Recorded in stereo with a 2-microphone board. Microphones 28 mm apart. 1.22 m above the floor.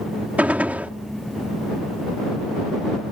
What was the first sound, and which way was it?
A gunshot, 85° right.